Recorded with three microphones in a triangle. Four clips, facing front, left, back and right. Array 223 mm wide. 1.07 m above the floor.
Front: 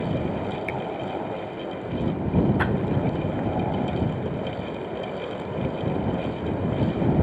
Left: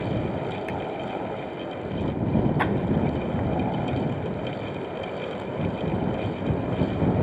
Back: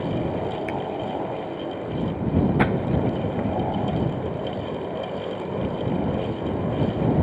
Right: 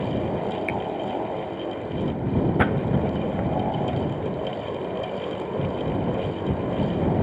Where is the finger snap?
110° right.